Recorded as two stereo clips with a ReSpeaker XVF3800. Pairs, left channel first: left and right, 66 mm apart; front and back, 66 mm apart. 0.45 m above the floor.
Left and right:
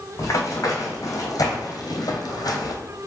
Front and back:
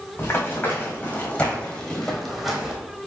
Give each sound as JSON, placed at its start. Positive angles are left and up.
{"t": 0.2, "sound": "running footsteps", "azimuth_deg": 55, "distance_m": 1.7}